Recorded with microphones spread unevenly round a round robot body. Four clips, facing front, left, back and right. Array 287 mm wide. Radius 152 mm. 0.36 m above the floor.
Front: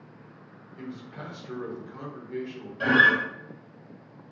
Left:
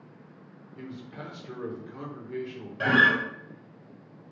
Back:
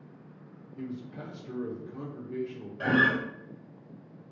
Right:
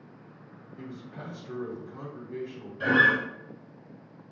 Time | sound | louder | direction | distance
0.8 | a man speaking | left 1 dB, back 1 dB | 120° left | 1.0 m
2.8 | a guitar | left 1 dB, front 4 dB | 80° left | 1.4 m